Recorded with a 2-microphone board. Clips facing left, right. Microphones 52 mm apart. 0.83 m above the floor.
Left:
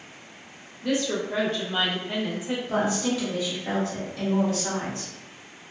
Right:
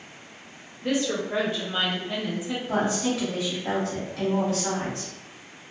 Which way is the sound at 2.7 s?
60° right (ahead or behind).